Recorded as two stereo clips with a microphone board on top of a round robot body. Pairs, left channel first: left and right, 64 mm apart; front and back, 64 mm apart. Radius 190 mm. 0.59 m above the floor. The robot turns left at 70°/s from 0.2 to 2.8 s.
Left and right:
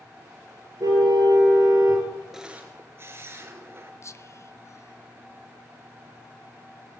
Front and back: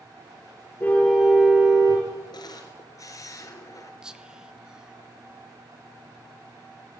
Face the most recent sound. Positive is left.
turn(degrees=105)